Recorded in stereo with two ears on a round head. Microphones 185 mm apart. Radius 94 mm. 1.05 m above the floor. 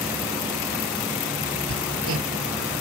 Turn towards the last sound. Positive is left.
turn(degrees=-65)  # may be behind; listen again after turning